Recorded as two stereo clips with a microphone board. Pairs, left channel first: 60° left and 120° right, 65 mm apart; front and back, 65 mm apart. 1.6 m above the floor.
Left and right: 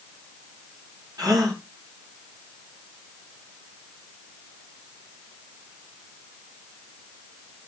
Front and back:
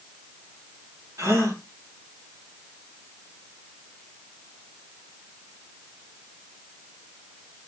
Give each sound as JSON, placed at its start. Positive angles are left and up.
{"t": 1.2, "sound": "a gasp", "azimuth_deg": -140, "distance_m": 4.5}